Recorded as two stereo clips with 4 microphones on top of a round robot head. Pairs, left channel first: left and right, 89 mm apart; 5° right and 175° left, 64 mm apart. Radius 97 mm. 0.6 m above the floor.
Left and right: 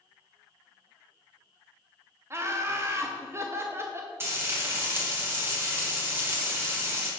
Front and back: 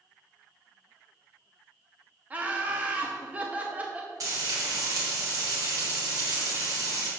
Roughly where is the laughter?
Behind right.